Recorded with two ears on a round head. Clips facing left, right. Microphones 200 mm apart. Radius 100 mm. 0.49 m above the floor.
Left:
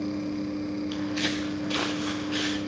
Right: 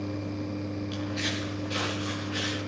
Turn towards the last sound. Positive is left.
turn(degrees=65)  # may be behind; listen again after turning